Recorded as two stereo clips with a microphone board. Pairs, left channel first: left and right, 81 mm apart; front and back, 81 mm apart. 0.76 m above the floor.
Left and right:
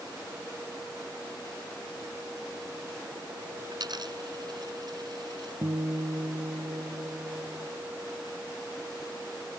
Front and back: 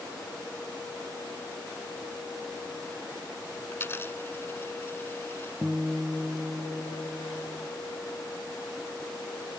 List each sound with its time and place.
3.7 s a dropped coin: 60° right
5.6 s a guitar: 105° right